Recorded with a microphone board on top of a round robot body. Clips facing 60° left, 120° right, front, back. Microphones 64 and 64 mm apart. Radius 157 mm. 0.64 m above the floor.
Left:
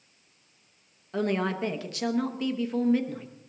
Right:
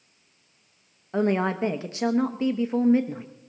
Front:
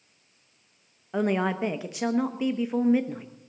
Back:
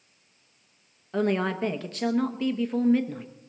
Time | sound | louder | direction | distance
1.1 | a woman speaking | right 4 dB, even | 70° right | 1.1 m